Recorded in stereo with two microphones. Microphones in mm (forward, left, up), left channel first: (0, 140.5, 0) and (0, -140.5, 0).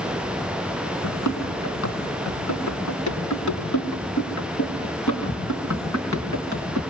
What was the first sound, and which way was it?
Running footsteps, 70° left (ahead or behind).